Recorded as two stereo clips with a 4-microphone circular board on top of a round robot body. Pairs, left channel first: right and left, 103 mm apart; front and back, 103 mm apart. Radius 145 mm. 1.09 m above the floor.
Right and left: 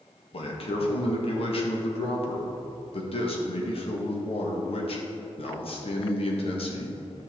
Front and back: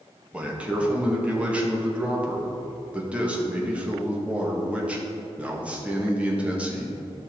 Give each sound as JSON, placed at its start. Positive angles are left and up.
{"t": 0.3, "sound": "a man speaking", "azimuth_deg": -105, "distance_m": 1.8}